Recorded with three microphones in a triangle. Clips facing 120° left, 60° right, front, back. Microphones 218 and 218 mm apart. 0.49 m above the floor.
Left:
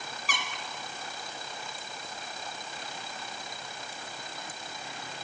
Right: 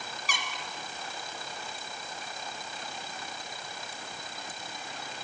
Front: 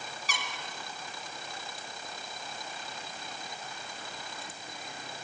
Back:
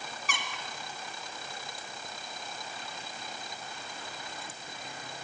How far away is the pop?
I don't hear a pop.